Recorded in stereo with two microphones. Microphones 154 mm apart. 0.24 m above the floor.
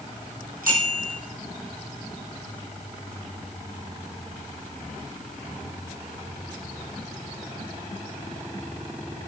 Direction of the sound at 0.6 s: 80° right.